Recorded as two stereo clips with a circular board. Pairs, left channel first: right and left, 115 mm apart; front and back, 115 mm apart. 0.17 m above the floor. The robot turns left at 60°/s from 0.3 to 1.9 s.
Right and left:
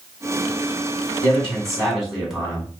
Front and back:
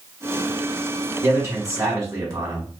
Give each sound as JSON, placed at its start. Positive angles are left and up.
{"t": 1.2, "sound": "a man speaking", "azimuth_deg": -150, "distance_m": 1.5}